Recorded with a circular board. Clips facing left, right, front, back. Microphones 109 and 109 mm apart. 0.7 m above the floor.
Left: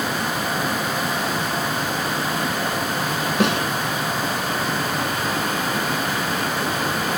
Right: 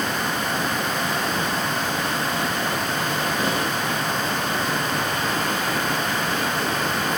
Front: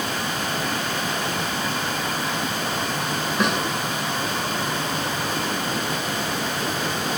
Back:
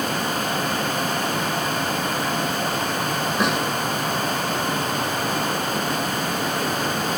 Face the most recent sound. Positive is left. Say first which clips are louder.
# left 7 dB, even
turn(degrees=90)